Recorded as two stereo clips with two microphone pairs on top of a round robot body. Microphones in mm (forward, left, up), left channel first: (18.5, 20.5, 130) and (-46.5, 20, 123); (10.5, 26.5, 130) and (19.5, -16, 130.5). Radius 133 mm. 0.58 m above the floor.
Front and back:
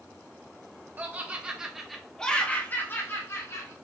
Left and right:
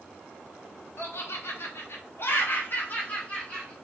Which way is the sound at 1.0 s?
125° left.